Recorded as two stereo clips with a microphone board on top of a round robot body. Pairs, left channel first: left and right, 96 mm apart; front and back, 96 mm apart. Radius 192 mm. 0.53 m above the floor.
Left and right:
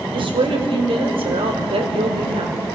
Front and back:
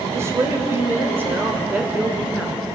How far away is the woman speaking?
About 3 m.